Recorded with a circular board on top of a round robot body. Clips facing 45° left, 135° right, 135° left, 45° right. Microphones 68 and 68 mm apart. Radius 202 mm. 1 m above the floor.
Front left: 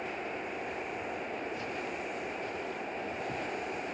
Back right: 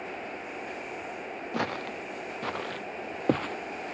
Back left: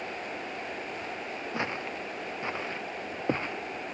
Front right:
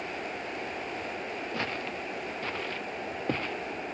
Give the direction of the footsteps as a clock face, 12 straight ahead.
5 o'clock.